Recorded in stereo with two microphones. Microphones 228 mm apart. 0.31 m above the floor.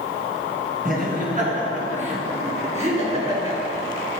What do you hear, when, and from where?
0.8 s laughter: 40° right (ahead or behind), 3.5 m; by 3.6 s 25° right (ahead or behind), 5 m